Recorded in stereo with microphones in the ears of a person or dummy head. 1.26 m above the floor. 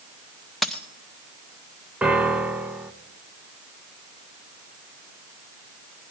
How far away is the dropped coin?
About 0.5 m.